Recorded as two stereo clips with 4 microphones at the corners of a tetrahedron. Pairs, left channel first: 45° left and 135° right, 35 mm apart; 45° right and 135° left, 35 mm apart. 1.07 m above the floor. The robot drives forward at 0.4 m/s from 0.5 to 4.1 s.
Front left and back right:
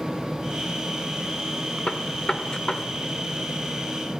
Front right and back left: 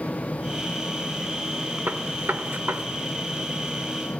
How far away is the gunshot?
About 1.8 m.